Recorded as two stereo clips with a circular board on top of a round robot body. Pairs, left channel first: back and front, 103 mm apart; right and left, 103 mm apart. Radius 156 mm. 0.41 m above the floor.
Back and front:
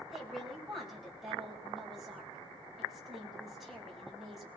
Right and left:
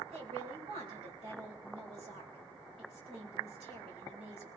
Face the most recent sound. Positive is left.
turn(degrees=90)